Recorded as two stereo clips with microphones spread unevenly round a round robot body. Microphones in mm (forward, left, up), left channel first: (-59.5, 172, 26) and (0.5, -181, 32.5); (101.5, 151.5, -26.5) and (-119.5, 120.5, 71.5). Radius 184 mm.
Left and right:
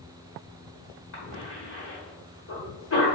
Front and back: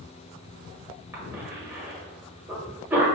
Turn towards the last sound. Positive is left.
turn(degrees=80)